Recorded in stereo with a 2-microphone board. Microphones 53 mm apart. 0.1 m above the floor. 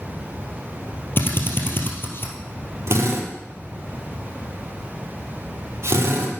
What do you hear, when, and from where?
1.2 s a drill: 45° left (ahead or behind), 2 m
2.9 s a drill: 55° right (ahead or behind), 3 m